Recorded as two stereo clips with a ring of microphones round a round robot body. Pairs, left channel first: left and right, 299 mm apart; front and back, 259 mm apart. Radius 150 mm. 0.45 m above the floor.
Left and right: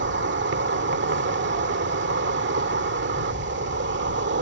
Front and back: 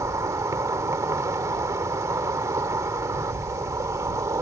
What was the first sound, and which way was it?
An insect, 110° right.